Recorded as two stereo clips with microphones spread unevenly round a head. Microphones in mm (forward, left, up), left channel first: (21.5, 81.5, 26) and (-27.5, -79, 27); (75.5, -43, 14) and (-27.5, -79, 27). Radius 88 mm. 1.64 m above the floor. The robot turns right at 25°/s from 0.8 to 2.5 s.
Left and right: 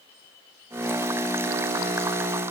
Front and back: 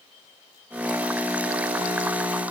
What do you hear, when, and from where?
Only background noise.